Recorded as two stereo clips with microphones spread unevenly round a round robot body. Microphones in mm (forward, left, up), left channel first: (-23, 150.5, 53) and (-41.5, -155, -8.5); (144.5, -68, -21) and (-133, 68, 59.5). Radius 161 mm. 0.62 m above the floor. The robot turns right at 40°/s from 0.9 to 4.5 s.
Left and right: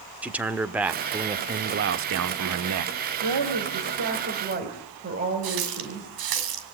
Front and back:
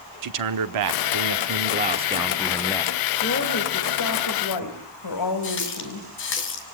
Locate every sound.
0.2 s a man speaking: 175° right, 1.4 m; by 3.0 s 90° right, 1.4 m
3.2 s a woman speaking: 85° right, 4.5 m; by 6.1 s 35° right, 4.5 m
5.4 s a running tap: 80° right, 3 m